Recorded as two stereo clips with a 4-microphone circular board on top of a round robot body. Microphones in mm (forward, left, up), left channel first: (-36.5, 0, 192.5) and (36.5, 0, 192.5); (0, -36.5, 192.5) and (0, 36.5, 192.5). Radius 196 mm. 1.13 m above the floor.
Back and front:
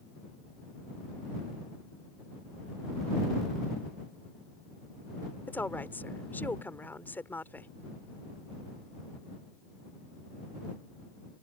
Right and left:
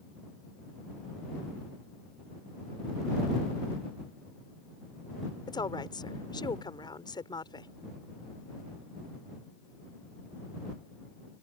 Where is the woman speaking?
115° right.